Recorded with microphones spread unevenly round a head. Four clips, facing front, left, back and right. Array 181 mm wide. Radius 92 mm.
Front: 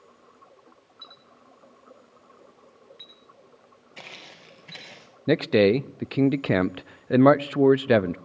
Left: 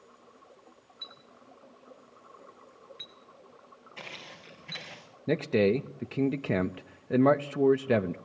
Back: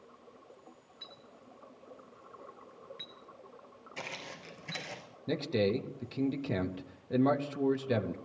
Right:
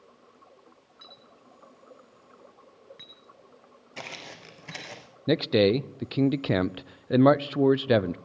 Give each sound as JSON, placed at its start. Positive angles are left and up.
{"t": 1.0, "sound": "a clink", "azimuth_deg": -110, "distance_m": 8.0}
{"t": 4.0, "sound": "footsteps", "azimuth_deg": -90, "distance_m": 5.0}
{"t": 5.3, "sound": "a man speaking", "azimuth_deg": -20, "distance_m": 0.6}